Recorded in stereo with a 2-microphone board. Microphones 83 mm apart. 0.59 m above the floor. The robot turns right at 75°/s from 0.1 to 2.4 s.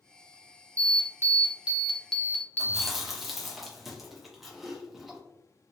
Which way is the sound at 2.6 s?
5° right (ahead or behind).